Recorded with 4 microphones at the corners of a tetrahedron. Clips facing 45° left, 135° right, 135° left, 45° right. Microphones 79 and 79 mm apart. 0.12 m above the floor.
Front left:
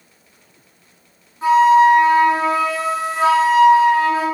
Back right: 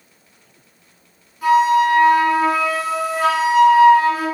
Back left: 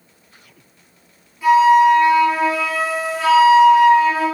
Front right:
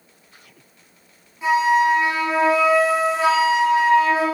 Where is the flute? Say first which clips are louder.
Front left 3 dB, back left 6 dB; 10° left, 1.3 m.